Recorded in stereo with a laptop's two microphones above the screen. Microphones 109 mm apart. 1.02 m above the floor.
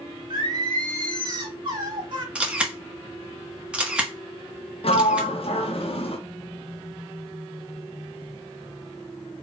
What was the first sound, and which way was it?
Singing, 45° right (ahead or behind).